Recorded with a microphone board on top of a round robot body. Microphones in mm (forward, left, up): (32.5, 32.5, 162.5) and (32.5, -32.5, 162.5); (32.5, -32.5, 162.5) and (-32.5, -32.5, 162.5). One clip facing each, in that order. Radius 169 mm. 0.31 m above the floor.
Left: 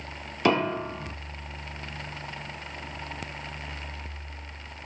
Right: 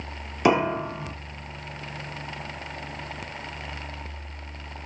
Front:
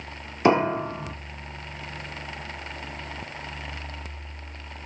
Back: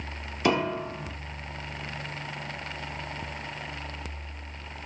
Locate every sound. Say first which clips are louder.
0.5 s a piano: right 3 dB, front 5 dB; 30° right, 0.8 m